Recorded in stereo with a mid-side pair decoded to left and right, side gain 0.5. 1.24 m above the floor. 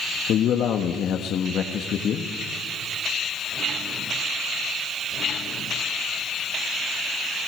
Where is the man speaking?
60° left, 1.6 m.